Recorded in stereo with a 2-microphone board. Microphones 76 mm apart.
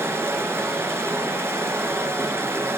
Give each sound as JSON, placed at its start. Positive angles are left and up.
{"t": 0.0, "sound": "running water", "side_deg": -30, "distance_m": 1.4}